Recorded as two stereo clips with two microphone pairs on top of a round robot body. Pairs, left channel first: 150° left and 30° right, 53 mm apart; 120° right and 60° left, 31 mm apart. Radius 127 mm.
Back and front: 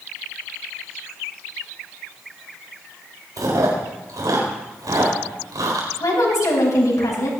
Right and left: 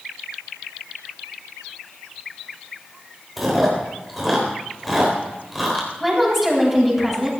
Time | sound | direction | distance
3.4 | chewing | 30° right | 4 m
6.0 | a woman speaking | 150° left | 7.5 m